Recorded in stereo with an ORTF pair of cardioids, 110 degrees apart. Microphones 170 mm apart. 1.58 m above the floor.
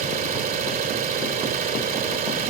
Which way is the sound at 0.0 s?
60° right.